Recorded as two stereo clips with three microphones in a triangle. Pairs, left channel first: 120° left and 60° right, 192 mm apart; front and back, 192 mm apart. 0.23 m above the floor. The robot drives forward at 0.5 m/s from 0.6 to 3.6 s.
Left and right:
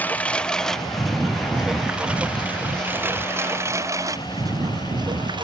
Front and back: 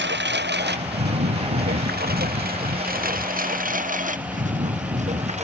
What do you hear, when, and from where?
0.0 s a lawn mower: 160° right; by 5.5 s 125° right